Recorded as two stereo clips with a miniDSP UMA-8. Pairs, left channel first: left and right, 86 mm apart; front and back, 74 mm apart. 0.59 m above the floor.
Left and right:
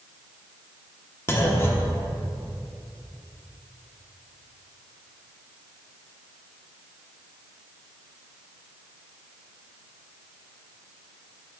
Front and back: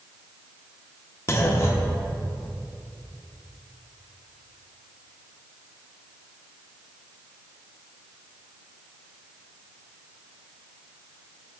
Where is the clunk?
40° left, 0.7 m.